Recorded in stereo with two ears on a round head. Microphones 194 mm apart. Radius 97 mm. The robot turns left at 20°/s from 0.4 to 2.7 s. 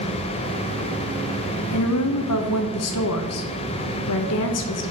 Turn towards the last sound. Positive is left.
turn(degrees=75)  # may be behind; listen again after turning